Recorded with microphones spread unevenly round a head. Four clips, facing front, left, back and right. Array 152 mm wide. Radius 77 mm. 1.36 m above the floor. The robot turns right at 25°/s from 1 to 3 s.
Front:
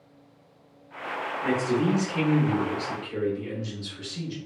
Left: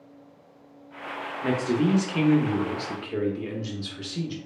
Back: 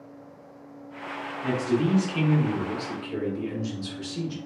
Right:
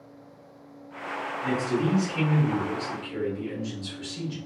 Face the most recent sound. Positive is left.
turn(degrees=125)